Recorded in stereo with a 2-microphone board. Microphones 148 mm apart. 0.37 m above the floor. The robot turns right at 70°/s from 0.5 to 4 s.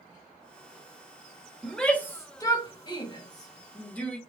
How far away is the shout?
About 1.0 m.